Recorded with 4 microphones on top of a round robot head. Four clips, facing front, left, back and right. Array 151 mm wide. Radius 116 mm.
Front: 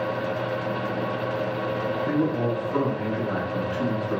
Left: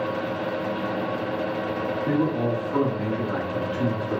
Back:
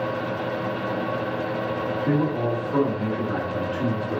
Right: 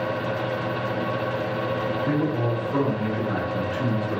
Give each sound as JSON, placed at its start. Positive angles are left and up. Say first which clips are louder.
{"t": 2.0, "sound": "a man speaking", "louder": "left 3 dB, back 1 dB", "azimuth_deg": 175, "distance_m": 1.4}